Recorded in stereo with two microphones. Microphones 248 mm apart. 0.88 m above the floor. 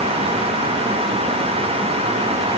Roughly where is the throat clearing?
I don't hear throat clearing.